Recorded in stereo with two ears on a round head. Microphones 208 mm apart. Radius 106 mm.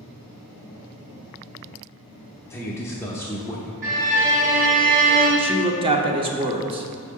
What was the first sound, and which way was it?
A man speaking, 10° left (ahead or behind).